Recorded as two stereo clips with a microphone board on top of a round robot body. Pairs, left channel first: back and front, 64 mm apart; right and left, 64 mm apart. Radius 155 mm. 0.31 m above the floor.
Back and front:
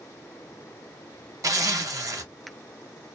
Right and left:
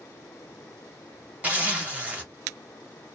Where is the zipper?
25° left, 1.4 m.